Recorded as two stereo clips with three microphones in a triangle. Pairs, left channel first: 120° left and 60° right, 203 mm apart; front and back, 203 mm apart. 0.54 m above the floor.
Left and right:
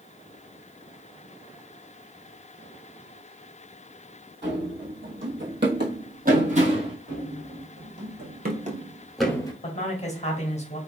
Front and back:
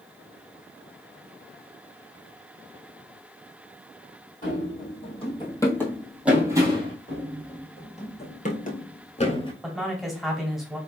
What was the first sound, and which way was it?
Running footsteps, 45° right.